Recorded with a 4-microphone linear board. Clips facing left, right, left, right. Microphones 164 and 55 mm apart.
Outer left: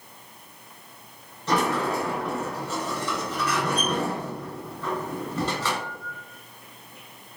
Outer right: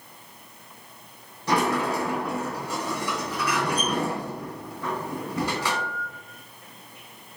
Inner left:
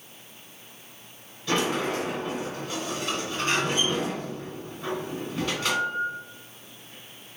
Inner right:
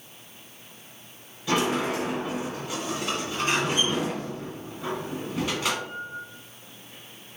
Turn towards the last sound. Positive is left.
turn(degrees=-15)  # may be behind; listen again after turning